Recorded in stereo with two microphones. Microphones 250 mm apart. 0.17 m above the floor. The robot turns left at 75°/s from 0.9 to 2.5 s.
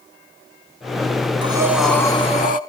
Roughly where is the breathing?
Behind right.